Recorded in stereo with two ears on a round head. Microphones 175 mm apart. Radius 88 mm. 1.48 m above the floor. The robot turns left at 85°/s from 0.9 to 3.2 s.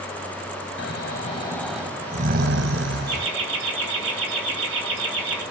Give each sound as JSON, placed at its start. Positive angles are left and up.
{"t": 0.8, "sound": "snoring", "azimuth_deg": 70, "distance_m": 3.0}
{"t": 3.1, "sound": "laughter", "side_deg": -55, "distance_m": 9.5}